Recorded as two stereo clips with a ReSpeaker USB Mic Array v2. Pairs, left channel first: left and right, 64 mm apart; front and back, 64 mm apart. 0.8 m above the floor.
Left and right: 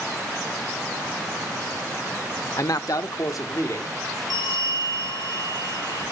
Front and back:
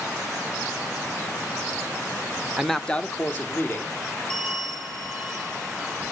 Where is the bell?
75° left, 7.5 m.